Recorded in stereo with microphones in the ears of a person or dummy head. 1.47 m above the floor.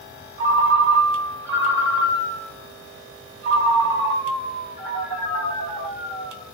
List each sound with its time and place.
0.4 s a ringtone: 60° right (ahead or behind), 1.7 m